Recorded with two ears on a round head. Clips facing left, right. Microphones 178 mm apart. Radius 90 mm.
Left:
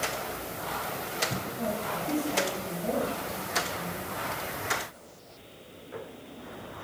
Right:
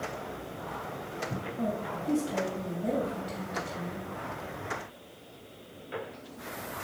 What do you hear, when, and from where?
1.6 s a woman speaking: 30° right (ahead or behind), 3 m